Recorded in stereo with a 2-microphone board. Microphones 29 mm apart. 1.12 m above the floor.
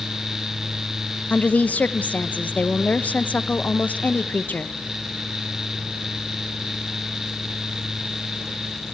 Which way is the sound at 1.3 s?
75° left (ahead or behind).